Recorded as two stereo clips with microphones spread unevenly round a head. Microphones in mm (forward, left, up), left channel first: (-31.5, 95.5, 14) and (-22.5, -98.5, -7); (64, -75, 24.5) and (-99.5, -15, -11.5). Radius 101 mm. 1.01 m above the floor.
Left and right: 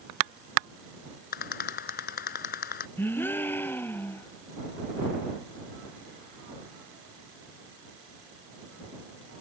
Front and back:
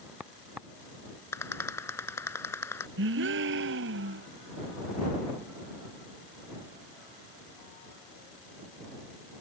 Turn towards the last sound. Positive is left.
turn(degrees=170)